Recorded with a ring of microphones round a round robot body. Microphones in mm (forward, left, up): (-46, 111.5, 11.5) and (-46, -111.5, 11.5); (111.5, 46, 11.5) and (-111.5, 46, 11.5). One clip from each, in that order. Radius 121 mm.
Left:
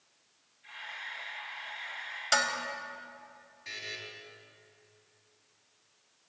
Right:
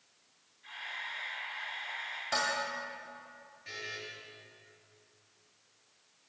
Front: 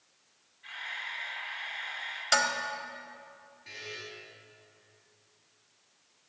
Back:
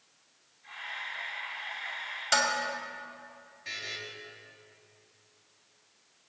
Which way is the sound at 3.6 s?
145° left.